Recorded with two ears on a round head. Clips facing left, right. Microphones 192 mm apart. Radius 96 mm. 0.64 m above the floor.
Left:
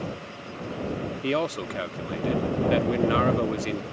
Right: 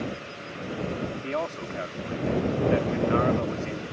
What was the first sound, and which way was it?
A man speaking, 45° left (ahead or behind).